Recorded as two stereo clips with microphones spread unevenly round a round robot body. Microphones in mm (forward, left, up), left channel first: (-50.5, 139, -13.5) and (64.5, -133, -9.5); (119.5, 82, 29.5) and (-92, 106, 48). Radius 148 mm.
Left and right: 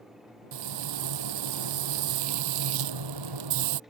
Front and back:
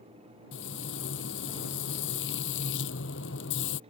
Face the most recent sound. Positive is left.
turn(degrees=-60)